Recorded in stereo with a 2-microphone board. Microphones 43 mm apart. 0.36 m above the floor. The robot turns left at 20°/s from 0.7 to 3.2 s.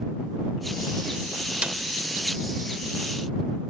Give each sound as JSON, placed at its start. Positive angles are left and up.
{"t": 1.6, "sound": "a snare drum", "side_deg": -25}